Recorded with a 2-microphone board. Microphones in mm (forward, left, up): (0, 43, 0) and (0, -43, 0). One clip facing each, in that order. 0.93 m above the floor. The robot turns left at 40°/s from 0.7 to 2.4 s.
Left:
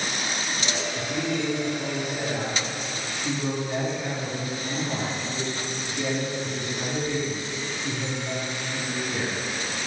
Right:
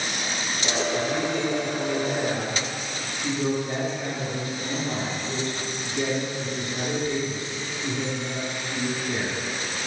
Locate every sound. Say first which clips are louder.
0.9 s a man speaking: right 2 dB; 10° left, 2.5 m; by 9.4 s 50° right, 2.5 m